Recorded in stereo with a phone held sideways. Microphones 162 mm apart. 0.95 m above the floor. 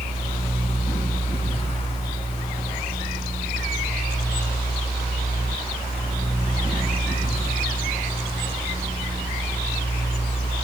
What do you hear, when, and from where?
0.0 s a fan: 35° left (ahead or behind), 1.6 m